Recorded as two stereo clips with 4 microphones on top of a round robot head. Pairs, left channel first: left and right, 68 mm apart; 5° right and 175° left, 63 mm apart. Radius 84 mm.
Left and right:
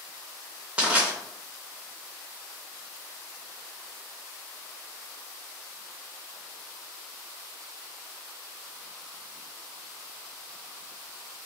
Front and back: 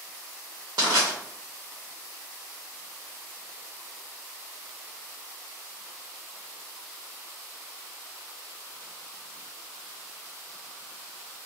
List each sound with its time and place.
0.8 s crushing: 160° right, 0.8 m